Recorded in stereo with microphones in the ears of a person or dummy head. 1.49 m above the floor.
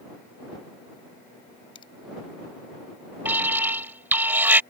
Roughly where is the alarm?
Centre.